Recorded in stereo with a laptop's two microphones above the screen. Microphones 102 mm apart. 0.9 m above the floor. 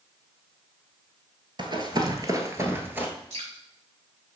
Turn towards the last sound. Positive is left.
turn(degrees=-70)  # may be behind; listen again after turning